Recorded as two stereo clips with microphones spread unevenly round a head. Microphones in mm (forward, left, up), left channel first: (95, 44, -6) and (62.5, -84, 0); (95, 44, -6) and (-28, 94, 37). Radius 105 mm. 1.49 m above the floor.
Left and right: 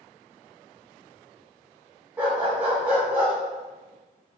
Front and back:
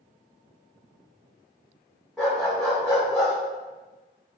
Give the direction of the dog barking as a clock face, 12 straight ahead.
5 o'clock.